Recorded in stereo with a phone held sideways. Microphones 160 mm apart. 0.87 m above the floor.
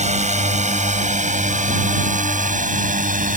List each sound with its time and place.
0.0 s a drone: 45° right (ahead or behind); by 3.4 s 55° right (ahead or behind)